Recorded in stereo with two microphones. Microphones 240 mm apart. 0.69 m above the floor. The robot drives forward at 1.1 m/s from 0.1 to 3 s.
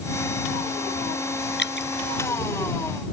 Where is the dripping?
45° left (ahead or behind).